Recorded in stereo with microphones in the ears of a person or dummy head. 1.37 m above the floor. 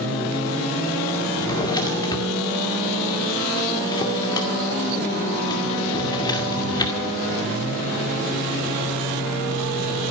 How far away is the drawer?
About 2 m.